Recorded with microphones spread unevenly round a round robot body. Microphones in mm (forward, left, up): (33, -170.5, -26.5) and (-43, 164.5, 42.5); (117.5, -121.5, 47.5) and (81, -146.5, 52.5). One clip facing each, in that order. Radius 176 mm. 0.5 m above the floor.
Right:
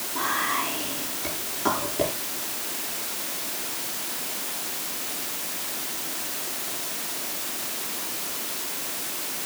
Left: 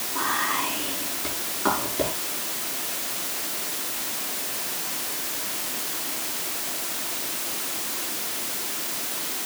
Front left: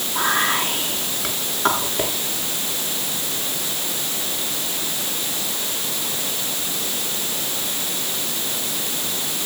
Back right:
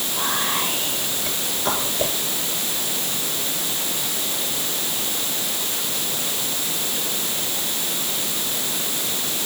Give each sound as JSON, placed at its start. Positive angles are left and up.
{"t": 0.1, "sound": "whispering", "azimuth_deg": 10, "distance_m": 7.0}